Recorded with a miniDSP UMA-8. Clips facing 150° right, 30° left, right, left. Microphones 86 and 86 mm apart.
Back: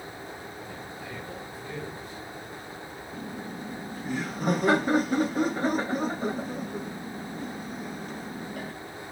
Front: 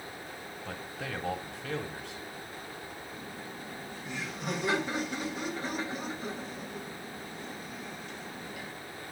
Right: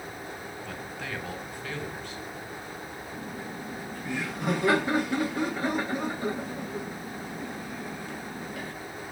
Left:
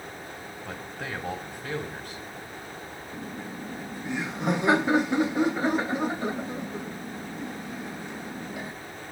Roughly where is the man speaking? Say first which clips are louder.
Even, left 3 dB; ahead left.